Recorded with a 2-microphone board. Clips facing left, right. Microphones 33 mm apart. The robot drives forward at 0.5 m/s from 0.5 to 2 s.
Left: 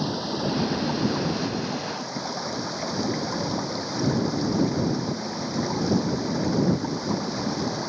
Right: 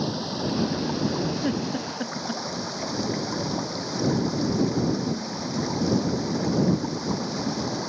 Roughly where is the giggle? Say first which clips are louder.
Right 1 dB; right.